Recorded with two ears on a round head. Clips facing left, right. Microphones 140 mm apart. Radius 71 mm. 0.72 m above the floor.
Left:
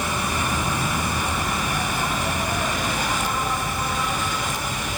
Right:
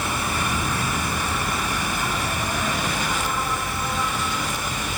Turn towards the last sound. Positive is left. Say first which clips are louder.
# left 1 dB
turn(degrees=15)  # may be behind; listen again after turning